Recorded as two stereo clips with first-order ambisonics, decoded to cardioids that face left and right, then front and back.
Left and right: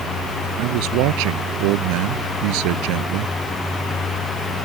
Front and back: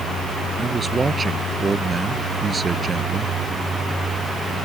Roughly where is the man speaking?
Right.